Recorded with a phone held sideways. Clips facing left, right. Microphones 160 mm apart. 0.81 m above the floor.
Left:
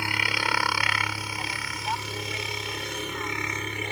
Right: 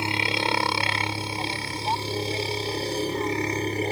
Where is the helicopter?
25° right (ahead or behind); by 3.9 s 35° right (ahead or behind).